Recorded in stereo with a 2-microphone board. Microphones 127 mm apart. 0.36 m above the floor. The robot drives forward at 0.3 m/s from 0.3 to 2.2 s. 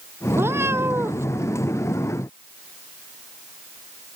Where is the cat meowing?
20° right (ahead or behind).